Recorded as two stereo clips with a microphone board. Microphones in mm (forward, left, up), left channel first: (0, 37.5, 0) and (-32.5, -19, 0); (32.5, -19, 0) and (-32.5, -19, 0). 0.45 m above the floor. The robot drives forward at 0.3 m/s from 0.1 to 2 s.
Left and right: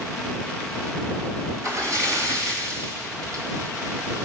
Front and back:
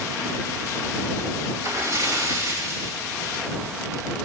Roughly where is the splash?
Behind right.